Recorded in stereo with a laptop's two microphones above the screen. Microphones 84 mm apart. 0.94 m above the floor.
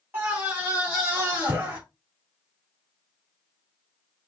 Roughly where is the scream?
Right.